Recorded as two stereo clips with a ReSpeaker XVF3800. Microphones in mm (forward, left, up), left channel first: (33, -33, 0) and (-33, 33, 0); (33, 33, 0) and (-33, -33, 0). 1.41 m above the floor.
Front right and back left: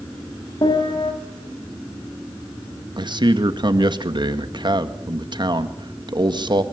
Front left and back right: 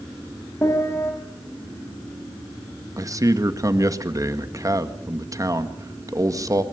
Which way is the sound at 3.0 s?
170° left.